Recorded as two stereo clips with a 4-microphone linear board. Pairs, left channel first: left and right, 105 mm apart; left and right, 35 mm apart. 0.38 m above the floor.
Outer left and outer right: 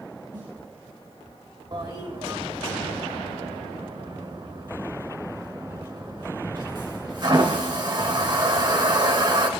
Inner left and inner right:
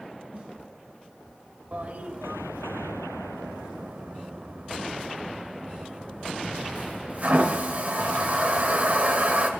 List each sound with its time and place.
0.3 s a snare drum: 45° right (ahead or behind), 4 m
1.7 s a toilet flushing: 45° right (ahead or behind), 2.0 m